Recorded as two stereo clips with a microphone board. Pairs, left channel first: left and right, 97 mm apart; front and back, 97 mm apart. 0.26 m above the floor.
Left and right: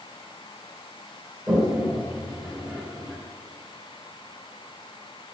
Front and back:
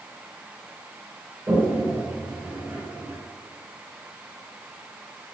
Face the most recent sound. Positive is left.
turn(degrees=-165)